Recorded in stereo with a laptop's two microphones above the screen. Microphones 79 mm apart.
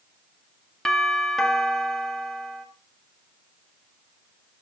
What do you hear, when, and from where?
0.8 s a doorbell: 5° left (ahead or behind), 2 m